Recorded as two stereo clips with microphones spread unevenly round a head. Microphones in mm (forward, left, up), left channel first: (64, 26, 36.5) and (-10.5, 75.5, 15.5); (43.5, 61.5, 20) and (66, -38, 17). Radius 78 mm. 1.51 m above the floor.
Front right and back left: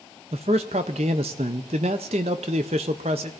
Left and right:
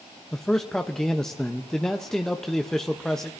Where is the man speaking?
170° right, 0.6 m.